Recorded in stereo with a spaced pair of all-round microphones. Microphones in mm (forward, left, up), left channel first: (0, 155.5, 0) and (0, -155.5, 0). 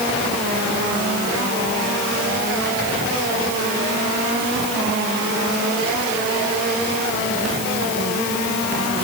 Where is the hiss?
I don't hear a hiss.